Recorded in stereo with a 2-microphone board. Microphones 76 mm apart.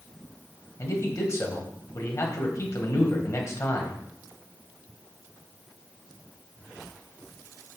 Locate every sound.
0.8 s a man speaking: 45° left (ahead or behind), 1.6 m